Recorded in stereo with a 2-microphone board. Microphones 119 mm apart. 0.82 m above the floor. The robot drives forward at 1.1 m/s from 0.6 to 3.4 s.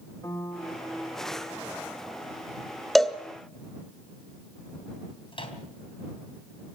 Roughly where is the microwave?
Left.